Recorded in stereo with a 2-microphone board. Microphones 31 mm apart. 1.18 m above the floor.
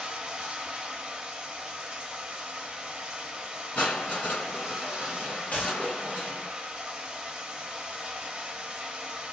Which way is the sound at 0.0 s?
25° right (ahead or behind).